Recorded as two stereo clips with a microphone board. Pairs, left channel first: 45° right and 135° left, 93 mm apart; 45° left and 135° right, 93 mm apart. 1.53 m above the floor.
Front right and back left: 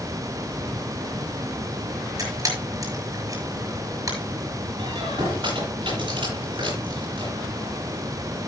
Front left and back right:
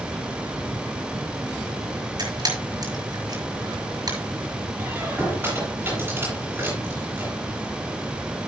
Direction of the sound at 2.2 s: 175° right.